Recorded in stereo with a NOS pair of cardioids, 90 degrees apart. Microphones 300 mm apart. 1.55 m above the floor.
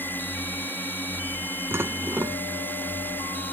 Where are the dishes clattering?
5° right.